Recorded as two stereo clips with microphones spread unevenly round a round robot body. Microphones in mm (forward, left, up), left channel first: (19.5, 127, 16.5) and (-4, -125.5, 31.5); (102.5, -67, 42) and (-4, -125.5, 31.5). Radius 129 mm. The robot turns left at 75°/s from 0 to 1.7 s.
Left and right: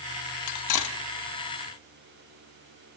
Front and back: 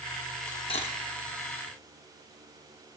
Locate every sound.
0.5 s cutlery clinking: 110° left, 1.2 m; by 1.0 s 75° left, 1.2 m